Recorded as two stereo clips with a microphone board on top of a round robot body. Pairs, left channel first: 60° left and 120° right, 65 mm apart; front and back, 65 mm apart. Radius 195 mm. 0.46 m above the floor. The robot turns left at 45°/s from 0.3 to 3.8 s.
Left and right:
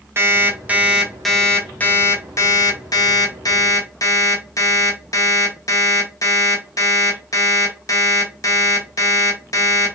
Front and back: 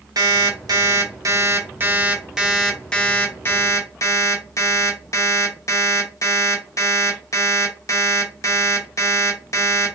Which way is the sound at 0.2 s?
170° right.